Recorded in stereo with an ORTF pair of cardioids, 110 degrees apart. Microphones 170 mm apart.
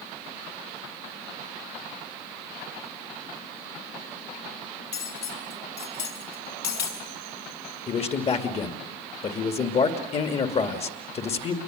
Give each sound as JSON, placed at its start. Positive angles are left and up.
{"t": 4.9, "sound": "cutlery clinking", "azimuth_deg": 70, "distance_m": 5.5}
{"t": 7.9, "sound": "a man speaking", "azimuth_deg": 40, "distance_m": 2.5}